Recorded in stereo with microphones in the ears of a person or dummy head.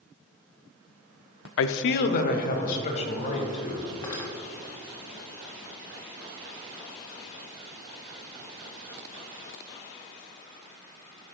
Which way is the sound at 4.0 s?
20° left (ahead or behind).